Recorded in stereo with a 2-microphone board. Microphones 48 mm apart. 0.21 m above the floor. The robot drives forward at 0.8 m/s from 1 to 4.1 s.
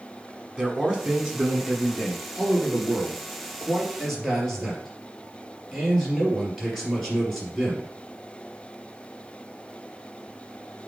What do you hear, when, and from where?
0.6 s a man speaking: 15° right (ahead or behind), 1.7 m; by 7.9 s 5° right (ahead or behind), 4 m